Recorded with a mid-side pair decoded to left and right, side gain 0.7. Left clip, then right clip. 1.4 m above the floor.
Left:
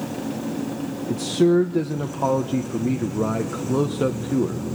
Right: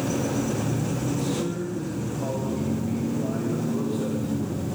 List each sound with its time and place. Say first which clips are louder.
1.1 s a man speaking: left 13 dB; 55° left, 1.3 m